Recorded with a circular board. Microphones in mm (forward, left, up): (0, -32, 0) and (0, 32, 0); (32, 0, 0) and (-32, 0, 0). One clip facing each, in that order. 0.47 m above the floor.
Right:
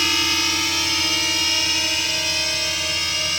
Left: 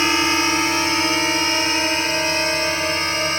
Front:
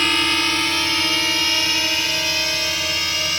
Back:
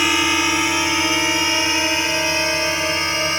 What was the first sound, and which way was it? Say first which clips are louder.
A drone: left 5 dB, back 2 dB; 110° left.